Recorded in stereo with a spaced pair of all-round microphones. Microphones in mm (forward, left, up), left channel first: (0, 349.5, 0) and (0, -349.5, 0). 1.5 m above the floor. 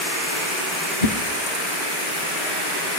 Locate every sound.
1.0 s a whoosh: 85° left, 1.1 m